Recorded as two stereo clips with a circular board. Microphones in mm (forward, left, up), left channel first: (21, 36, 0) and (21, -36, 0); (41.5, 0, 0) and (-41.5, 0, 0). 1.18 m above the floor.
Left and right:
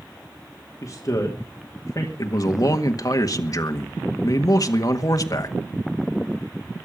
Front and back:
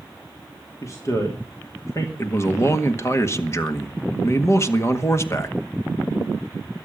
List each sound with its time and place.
0.8 s a man speaking: 50° left, 2.5 m
2.2 s a man speaking: 55° left, 1.8 m